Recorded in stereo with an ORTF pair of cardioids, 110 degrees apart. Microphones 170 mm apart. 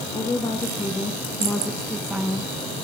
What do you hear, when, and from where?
0.1 s a woman speaking: 25° left, 3.5 m; by 2.5 s 15° right, 1.8 m